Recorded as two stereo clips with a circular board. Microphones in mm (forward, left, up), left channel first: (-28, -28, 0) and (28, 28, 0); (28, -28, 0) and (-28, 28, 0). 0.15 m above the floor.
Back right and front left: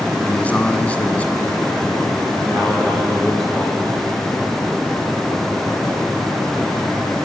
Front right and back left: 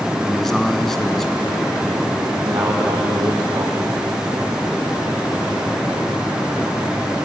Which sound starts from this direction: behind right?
A man speaking, at 0.2 s.